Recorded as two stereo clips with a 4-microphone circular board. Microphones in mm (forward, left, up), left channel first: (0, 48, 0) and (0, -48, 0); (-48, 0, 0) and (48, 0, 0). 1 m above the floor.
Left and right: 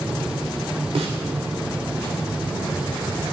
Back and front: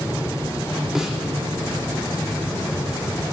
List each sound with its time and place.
0.9 s a snare drum: 85° right, 2.5 m